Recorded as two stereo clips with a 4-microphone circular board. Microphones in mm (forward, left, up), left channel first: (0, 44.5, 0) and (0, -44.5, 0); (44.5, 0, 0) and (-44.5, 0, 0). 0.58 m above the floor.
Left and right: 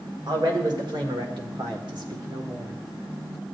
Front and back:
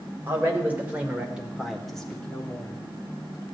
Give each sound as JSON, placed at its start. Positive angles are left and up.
{"t": 0.3, "sound": "a man speaking", "azimuth_deg": -115, "distance_m": 2.0}